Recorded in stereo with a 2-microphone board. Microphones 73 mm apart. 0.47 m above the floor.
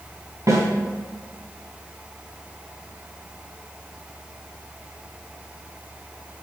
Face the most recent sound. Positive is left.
turn(degrees=-45)  # may be behind; listen again after turning